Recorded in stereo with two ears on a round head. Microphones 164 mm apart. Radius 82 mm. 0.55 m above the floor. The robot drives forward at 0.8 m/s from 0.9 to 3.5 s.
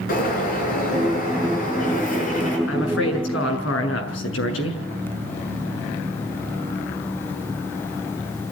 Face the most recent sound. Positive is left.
turn(degrees=80)